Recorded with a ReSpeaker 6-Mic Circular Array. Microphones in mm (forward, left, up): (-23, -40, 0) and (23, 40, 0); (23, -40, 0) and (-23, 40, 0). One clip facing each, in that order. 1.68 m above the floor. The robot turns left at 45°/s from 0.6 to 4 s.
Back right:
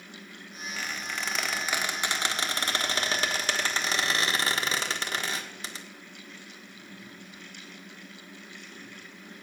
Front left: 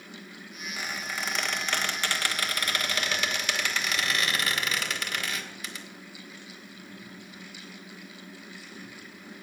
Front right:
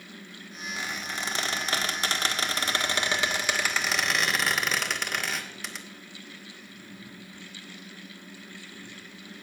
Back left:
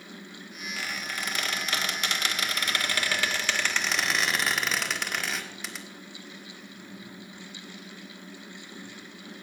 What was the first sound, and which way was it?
A squeak, 5° right.